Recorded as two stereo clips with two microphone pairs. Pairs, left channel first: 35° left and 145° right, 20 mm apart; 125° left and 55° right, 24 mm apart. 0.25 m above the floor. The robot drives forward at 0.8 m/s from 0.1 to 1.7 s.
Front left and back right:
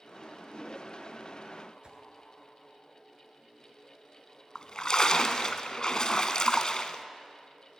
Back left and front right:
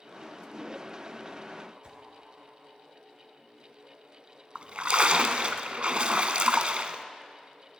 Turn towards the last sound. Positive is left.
turn(degrees=-15)